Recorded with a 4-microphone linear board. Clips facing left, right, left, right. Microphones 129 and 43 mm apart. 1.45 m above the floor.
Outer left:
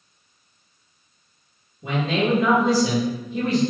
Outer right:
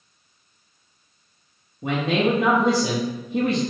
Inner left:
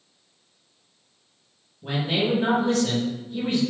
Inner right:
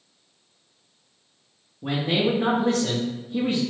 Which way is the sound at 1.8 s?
60° right (ahead or behind).